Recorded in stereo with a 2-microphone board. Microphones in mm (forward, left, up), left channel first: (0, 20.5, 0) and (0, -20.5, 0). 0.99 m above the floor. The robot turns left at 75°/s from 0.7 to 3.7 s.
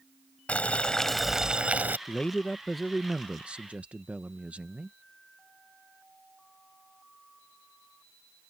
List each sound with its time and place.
0.5 s boiling: 40° left; by 2.0 s 55° right
2.1 s a man speaking: 55° left; by 5.0 s 70° right